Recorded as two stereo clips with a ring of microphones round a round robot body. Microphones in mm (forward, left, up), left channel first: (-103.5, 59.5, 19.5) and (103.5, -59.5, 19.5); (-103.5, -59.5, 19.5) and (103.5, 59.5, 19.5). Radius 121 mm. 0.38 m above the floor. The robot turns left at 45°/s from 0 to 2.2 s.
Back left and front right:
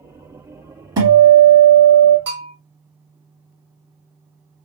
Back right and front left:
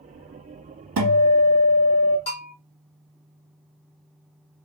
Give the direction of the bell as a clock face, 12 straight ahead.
3 o'clock.